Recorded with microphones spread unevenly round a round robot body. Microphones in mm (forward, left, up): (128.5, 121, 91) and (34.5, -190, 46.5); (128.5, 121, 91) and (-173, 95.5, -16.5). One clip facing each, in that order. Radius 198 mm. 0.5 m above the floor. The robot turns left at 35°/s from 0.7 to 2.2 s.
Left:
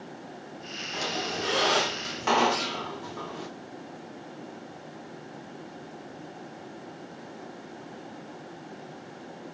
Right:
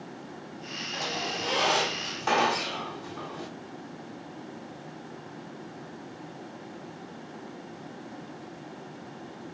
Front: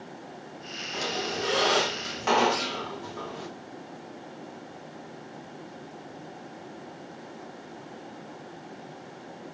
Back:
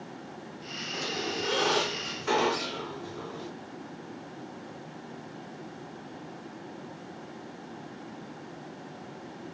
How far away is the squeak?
About 2.5 m.